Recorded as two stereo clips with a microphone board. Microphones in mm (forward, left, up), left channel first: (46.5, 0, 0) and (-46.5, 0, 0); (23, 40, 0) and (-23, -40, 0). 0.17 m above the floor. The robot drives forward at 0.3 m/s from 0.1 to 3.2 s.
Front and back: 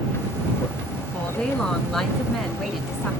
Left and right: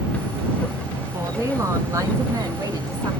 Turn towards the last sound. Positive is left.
turn(degrees=-100)